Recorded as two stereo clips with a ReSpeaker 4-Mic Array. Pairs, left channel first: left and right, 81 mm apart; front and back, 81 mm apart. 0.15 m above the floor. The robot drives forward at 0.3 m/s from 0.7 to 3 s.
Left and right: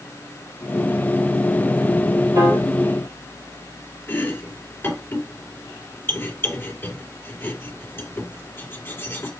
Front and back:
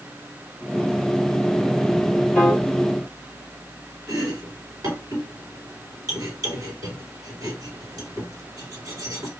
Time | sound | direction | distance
2.4 | a piano | 100° right | 3.5 m
4.1 | chopping | 150° left | 2.5 m